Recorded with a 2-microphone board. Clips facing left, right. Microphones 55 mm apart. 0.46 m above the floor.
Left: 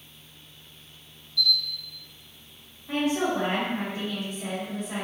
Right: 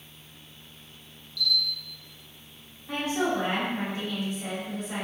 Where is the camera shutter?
15° left (ahead or behind), 1.3 m.